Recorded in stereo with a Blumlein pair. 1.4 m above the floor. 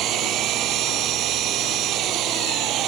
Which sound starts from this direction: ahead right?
An engine running, at 0.0 s.